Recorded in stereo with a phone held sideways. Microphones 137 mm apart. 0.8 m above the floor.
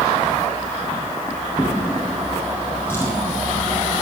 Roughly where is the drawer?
Centre.